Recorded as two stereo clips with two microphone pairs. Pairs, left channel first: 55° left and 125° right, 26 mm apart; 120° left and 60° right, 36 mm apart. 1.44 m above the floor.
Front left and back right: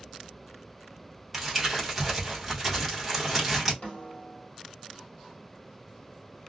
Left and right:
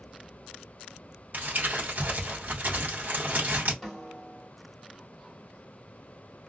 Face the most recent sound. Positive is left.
turn(degrees=25)